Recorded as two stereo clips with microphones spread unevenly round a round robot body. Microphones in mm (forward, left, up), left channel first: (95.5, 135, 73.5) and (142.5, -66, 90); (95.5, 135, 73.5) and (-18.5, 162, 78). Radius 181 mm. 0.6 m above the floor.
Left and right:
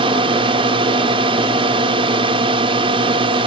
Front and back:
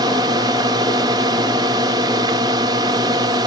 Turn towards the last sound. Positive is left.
turn(degrees=-140)